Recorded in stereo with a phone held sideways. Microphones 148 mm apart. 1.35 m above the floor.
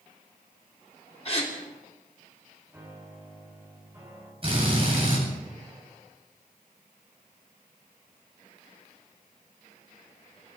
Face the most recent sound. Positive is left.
turn(degrees=-40)  # may be behind; listen again after turning